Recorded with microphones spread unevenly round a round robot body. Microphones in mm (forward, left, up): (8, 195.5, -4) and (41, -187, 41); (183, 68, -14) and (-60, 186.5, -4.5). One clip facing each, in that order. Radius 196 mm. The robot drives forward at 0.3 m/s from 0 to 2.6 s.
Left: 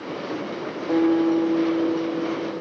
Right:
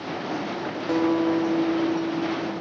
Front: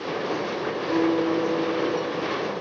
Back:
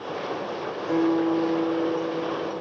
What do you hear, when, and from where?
0.9 s a guitar: 145° right, 1.1 m; by 2.6 s 160° right, 1.5 m